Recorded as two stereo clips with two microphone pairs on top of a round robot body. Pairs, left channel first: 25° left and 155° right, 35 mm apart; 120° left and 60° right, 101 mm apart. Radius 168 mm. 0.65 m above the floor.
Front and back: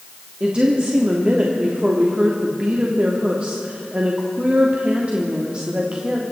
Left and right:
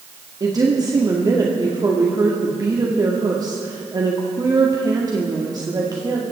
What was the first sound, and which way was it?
A woman speaking, 110° right.